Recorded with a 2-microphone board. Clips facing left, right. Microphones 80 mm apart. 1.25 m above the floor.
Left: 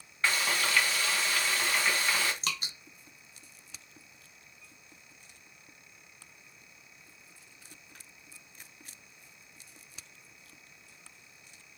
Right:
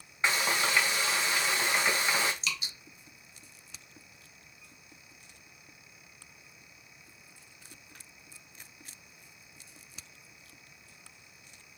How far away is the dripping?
About 1.1 m.